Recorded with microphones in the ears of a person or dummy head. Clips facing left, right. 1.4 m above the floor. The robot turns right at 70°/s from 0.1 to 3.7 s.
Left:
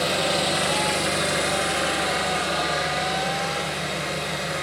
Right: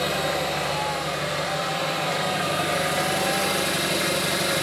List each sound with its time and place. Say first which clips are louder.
0.0 s an engine running: left 1 dB; 30° left, 1.7 m; by 4.6 s 75° right, 1.7 m